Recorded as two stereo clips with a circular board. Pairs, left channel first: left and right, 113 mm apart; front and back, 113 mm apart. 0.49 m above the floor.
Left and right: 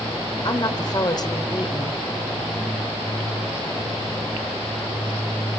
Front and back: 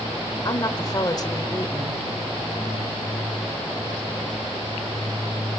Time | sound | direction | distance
0.5 | a woman speaking | 45° left | 2 m